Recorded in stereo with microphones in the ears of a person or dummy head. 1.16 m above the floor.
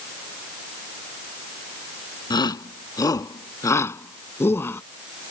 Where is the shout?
20° left (ahead or behind); by 4.8 s 10° left (ahead or behind).